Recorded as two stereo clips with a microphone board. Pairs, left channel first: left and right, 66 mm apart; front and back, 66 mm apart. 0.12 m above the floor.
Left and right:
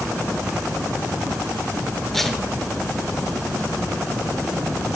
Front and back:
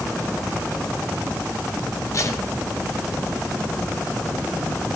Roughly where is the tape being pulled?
Ahead.